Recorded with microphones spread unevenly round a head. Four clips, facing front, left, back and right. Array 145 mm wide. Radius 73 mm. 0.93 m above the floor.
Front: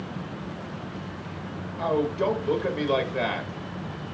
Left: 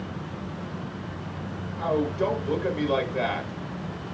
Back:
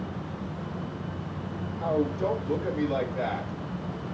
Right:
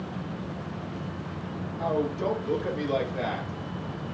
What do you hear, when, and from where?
1.8 s a man speaking: 5° left, 0.9 m